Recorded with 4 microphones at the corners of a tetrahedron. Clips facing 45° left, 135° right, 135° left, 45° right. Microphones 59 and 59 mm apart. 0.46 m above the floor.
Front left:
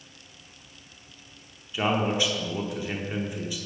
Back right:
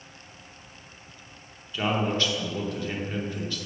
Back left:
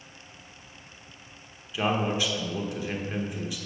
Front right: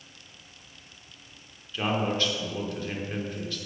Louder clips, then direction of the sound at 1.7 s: Front left 1 dB, back left 1 dB; 90° left.